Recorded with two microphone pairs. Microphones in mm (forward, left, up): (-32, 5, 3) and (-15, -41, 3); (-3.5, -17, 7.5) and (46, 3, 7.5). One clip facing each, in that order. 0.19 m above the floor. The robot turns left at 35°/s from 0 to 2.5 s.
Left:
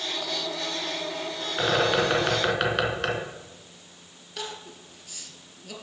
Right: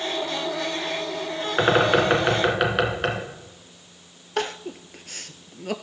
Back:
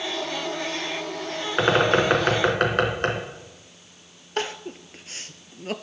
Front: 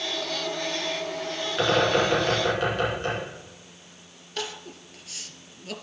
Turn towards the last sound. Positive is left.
turn(degrees=-105)